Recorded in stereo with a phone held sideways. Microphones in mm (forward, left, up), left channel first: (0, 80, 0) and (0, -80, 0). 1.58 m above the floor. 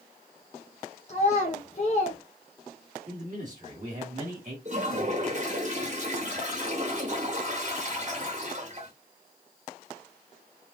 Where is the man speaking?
50° right (ahead or behind), 1.7 m.